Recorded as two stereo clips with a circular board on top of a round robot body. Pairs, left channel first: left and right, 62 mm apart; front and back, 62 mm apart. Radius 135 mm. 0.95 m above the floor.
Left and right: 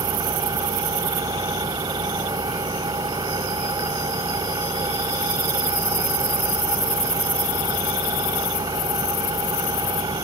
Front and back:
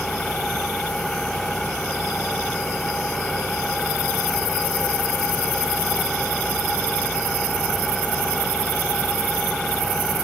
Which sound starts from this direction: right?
An engine running, at 0.0 s.